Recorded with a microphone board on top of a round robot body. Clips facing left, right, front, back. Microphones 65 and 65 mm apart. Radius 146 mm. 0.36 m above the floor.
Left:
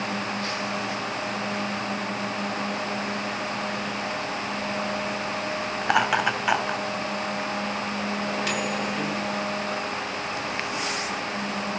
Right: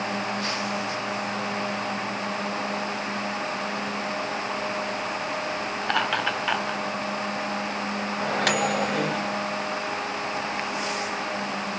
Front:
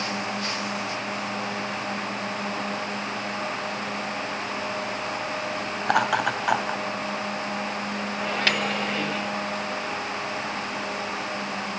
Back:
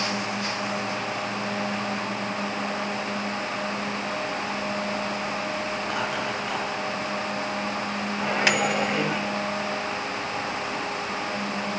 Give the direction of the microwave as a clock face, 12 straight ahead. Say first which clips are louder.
Right 7 dB, back 3 dB; 4 o'clock.